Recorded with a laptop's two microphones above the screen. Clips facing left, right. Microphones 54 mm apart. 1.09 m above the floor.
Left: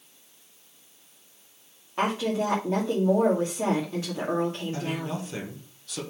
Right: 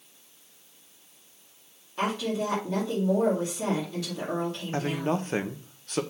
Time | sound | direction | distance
2.0 | a woman speaking | 30° left (ahead or behind) | 2.5 m
4.7 | a man speaking | 45° right (ahead or behind) | 1.1 m